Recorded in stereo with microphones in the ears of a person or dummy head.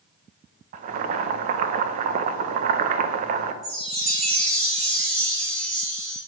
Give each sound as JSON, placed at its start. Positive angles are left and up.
{"t": 0.7, "sound": "boiling", "side_deg": -40, "distance_m": 0.5}
{"t": 3.6, "sound": "a chime", "side_deg": -50, "distance_m": 2.5}